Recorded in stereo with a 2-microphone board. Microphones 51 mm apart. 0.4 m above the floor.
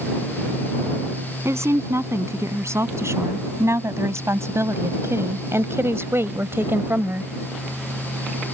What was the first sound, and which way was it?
A woman speaking, 65° right (ahead or behind).